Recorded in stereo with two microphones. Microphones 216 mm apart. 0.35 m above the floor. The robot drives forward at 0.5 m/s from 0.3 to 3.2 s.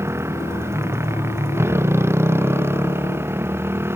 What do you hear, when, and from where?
0.0 s a motorcycle: 10° right (ahead or behind)